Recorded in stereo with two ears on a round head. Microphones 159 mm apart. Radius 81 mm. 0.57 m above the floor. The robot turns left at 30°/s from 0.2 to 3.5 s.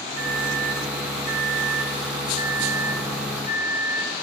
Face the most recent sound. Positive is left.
turn(degrees=-15)  # may be behind; listen again after turning